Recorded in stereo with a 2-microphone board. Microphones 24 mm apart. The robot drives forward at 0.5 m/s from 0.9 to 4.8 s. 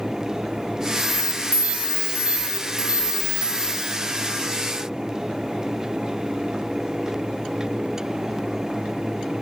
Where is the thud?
No thud in this recording.